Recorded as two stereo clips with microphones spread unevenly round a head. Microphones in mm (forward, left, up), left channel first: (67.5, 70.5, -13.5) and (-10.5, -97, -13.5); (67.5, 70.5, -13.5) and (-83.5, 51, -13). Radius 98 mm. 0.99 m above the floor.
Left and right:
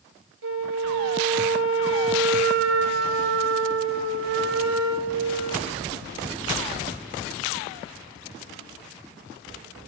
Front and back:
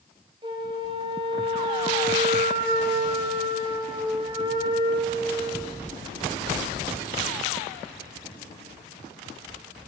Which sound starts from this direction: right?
A flute, at 0.4 s.